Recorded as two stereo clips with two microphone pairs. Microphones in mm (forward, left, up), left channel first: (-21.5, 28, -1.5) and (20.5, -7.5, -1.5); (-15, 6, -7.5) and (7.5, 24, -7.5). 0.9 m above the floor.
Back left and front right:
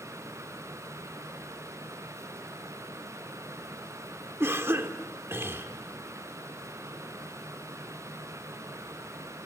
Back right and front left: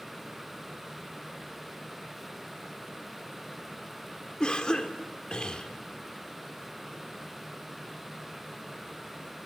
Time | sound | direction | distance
4.4 | a cough | 80° right | 1.9 m